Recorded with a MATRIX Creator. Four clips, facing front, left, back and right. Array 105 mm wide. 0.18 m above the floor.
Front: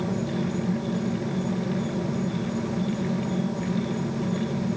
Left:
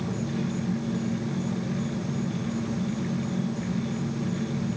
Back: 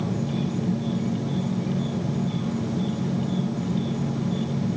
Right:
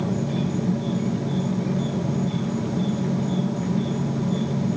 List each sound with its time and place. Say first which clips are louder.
0.0 s an insect: right 5 dB, even; 125° right, 2.5 m